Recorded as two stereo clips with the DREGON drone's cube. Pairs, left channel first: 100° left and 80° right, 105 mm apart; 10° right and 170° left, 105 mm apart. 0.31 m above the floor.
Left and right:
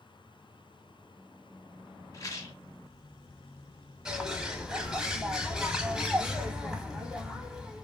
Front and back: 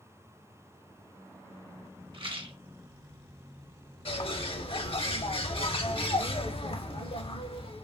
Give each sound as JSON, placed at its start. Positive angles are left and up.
{"t": 2.1, "sound": "a rattle", "azimuth_deg": 145, "distance_m": 0.7}
{"t": 4.0, "sound": "a bird", "azimuth_deg": 0, "distance_m": 0.6}